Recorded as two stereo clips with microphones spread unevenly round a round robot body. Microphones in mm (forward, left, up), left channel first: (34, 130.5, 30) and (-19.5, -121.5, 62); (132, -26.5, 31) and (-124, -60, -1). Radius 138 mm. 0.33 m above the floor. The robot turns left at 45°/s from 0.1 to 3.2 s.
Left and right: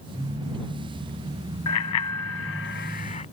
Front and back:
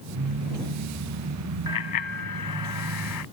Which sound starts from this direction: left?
A bicycle bell, at 1.7 s.